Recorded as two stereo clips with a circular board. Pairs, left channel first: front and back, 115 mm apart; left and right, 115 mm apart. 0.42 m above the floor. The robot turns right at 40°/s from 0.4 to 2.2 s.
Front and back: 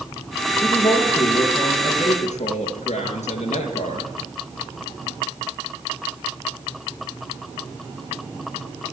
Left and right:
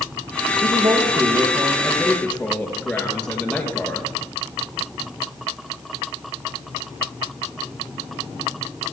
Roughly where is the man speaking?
Ahead right.